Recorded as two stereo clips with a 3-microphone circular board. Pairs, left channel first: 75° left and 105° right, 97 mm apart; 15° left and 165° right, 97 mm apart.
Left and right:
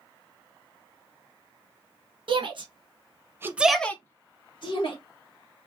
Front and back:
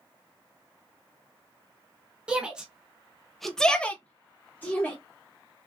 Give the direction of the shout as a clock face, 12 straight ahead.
3 o'clock.